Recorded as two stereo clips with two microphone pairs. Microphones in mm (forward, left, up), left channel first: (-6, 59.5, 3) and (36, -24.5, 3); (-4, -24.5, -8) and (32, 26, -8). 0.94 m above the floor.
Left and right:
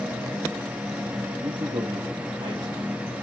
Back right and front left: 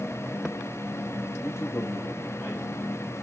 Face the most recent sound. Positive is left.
turn(degrees=-65)